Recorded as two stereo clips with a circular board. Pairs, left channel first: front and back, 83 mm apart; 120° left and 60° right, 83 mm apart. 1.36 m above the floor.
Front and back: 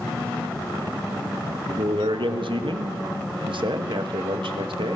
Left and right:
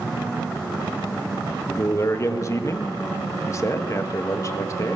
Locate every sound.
1.7 s a man speaking: 175° left, 1.8 m